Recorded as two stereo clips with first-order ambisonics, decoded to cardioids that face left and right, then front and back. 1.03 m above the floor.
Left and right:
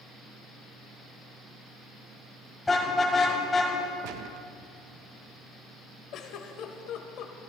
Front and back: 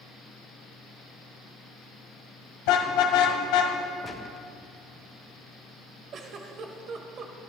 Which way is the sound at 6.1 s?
130° left.